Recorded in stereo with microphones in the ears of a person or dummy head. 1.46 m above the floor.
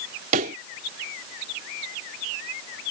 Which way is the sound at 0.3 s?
35° right (ahead or behind).